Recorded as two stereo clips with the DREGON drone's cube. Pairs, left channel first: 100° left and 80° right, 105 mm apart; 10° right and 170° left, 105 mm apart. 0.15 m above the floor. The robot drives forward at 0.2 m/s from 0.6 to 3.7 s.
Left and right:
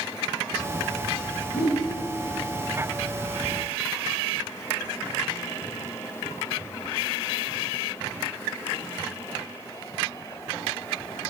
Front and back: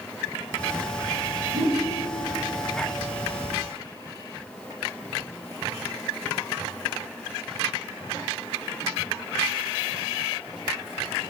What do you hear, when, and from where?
1.5 s a whoosh: 115° left, 1.9 m; by 1.8 s 120° left, 1.9 m